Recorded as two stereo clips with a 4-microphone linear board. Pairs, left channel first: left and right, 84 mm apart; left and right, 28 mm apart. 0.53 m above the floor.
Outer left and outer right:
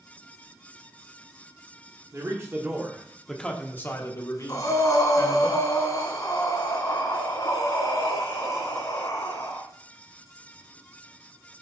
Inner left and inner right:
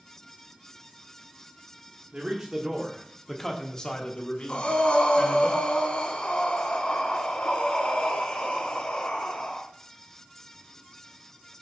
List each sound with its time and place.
2.1 s a man speaking: 40° right (ahead or behind), 1.4 m; by 5.5 s 65° left (ahead or behind), 2 m
4.5 s breathing: 50° left (ahead or behind), 2 m